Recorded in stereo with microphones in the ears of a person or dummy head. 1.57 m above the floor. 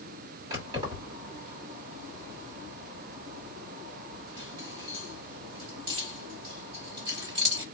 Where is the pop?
I don't hear a pop.